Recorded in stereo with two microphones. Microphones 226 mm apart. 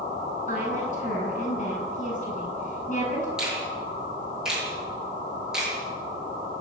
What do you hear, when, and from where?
0.5 s a woman speaking: 35° left (ahead or behind), 10 m
3.4 s a finger snap: 5° right (ahead or behind), 9.5 m